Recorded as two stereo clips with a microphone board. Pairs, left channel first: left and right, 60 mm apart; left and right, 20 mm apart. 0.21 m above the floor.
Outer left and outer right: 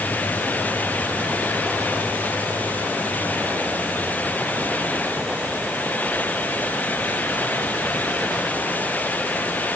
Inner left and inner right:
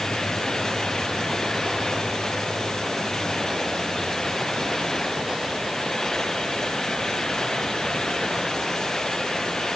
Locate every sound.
Only background noise.